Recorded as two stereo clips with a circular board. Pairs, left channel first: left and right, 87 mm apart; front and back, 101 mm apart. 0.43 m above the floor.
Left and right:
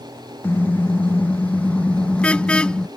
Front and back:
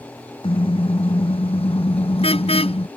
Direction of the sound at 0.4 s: 20° left.